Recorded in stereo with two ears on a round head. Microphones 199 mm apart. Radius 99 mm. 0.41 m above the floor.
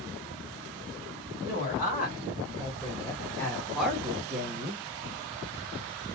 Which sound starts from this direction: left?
A woman speaking, at 1.4 s.